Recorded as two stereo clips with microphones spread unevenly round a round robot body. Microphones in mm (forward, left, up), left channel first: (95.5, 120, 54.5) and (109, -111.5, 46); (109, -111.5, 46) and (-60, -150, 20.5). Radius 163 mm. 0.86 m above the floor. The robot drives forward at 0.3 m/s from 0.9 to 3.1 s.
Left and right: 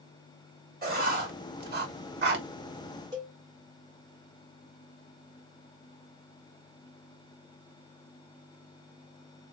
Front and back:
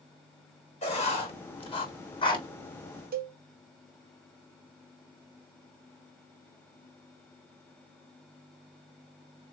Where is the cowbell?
160° right, 0.7 m.